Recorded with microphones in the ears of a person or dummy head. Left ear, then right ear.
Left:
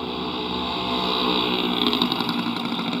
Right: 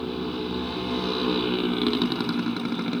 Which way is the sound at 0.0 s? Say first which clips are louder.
Left 3 dB; 35° left (ahead or behind).